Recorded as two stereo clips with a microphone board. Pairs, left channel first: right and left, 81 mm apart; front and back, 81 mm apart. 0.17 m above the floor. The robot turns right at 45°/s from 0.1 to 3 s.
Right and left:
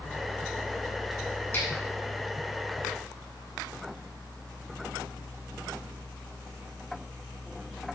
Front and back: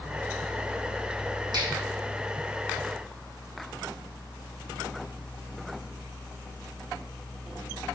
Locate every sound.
1.5 s a finger snap: 150° right, 4.5 m; by 1.7 s 145° right, 4.5 m